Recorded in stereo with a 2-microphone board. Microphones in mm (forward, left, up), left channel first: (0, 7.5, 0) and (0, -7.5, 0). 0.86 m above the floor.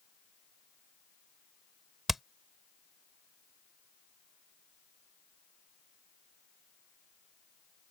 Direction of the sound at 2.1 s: 15° right (ahead or behind).